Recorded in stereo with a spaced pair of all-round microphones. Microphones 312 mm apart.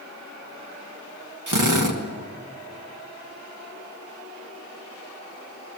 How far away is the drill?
About 1.7 m.